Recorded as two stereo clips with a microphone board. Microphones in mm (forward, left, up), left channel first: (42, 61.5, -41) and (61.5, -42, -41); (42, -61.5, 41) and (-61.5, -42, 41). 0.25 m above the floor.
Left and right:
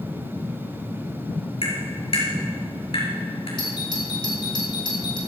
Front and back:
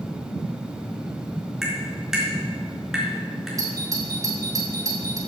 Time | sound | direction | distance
1.6 | tapping | 85° left | 5 m
3.6 | a doorbell | 125° left | 3 m